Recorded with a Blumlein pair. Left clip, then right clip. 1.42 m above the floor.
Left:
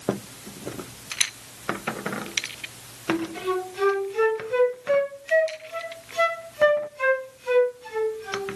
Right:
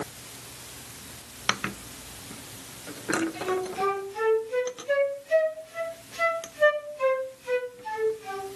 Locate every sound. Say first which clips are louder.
3.1 s a flute: left 1 dB; 65° left, 3 m